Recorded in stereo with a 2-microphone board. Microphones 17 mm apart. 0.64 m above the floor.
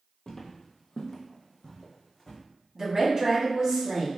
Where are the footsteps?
35° left (ahead or behind), 0.7 m; by 2.4 s 25° left (ahead or behind), 1.6 m.